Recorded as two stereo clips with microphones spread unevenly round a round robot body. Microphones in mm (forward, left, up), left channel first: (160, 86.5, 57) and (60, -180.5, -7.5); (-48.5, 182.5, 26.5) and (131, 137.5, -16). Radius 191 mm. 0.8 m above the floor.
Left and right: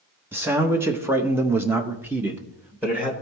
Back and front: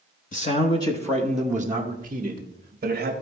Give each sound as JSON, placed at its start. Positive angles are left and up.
{"t": 0.3, "sound": "a man speaking", "azimuth_deg": -160, "distance_m": 0.8}